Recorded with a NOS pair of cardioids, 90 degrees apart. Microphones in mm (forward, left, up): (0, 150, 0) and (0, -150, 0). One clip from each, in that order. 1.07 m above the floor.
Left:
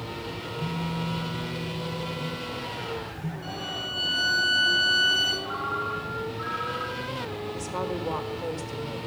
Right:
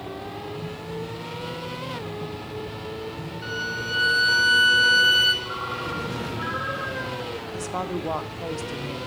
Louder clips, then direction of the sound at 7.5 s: Right 2 dB; 20° right.